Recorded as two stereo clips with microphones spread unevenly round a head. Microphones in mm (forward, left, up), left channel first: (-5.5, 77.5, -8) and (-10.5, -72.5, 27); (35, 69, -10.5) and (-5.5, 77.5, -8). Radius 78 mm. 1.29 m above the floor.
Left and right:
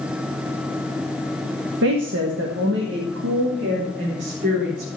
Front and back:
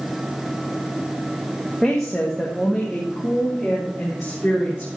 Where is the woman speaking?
100° right, 1.2 m; by 4.9 s 105° right, 4 m.